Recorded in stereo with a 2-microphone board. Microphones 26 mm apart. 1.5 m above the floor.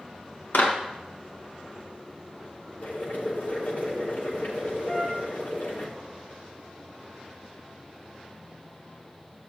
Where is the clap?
70° left (ahead or behind), 1.7 m.